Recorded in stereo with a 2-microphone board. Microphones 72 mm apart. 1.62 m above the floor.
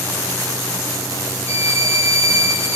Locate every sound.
1.5 s a violin: 40° right (ahead or behind), 0.7 m